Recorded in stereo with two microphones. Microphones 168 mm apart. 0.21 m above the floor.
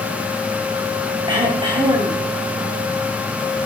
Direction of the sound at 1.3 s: 30° right (ahead or behind).